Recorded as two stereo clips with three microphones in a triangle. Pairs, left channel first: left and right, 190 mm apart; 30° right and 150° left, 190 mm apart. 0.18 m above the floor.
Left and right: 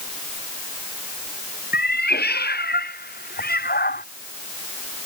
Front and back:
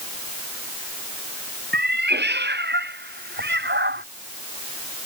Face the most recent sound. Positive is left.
turn(degrees=125)